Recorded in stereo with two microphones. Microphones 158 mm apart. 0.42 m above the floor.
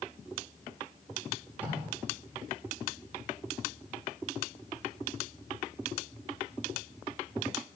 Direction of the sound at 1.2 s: 10° right (ahead or behind).